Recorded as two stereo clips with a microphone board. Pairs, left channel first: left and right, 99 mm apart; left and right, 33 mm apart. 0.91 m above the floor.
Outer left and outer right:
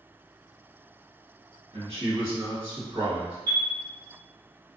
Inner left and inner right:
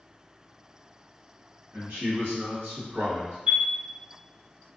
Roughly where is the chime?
Right.